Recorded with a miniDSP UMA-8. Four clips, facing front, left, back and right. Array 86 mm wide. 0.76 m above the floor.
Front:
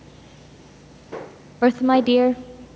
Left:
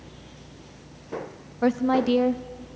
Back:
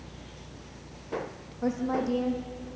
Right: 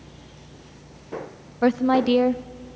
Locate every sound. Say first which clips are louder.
1.6 s a woman speaking: right 3 dB, front 12 dB; 20° right, 0.6 m